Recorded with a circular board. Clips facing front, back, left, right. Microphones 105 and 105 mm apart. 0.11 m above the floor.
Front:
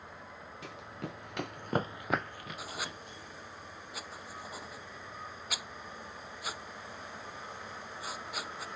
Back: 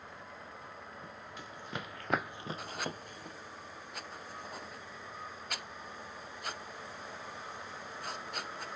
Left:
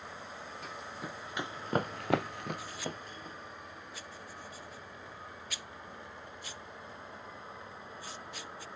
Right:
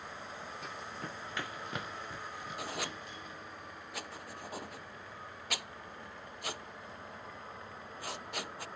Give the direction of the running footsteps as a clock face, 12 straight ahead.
12 o'clock.